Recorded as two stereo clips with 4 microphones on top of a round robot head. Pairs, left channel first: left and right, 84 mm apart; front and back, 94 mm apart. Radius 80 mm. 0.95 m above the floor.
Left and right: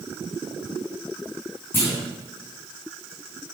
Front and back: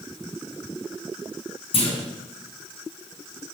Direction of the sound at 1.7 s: 20° left.